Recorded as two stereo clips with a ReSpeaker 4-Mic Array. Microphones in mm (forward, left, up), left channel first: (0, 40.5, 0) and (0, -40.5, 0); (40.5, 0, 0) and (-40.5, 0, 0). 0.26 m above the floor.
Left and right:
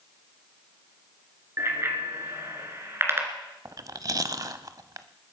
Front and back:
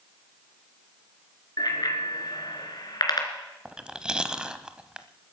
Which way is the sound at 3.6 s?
105° right.